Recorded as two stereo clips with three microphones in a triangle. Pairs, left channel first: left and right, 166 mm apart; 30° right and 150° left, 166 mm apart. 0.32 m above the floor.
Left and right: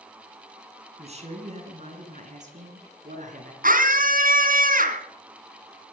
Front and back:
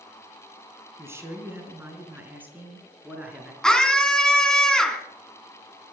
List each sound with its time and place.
1.0 s a man speaking: 135° right, 3.5 m; by 3.5 s 130° right, 5 m
3.6 s a scream: 115° right, 2.5 m